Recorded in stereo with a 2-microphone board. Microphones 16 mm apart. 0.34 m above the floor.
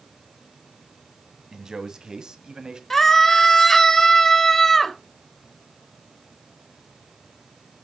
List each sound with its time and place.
1.5 s a man speaking: 50° right (ahead or behind), 2 m; by 2.8 s 60° right (ahead or behind), 1.6 m
2.9 s a scream: 25° left (ahead or behind), 0.9 m